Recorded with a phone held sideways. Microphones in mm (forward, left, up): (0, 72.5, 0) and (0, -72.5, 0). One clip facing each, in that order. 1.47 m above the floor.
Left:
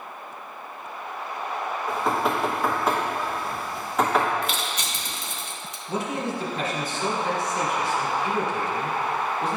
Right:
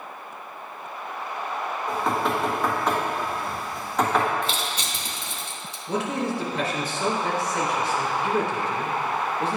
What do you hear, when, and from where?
1.9 s knocking: centre (ahead or behind), 1.4 m
4.4 s crushing: 30° right (ahead or behind), 1.0 m
5.9 s a man speaking: 85° right, 1.9 m